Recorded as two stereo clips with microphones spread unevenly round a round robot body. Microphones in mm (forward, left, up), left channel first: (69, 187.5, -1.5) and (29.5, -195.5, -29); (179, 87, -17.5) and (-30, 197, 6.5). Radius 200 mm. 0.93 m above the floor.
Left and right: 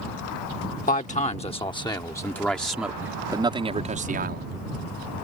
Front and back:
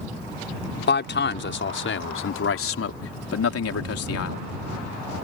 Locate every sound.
0.9 s a man speaking: 15° left; by 4.5 s 35° right